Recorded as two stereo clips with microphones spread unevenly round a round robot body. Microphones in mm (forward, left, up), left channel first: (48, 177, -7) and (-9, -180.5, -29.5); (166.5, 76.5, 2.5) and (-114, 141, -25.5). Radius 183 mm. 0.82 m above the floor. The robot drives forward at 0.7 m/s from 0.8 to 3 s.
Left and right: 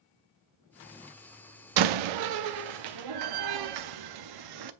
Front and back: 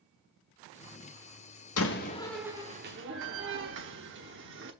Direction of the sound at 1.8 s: 65° right.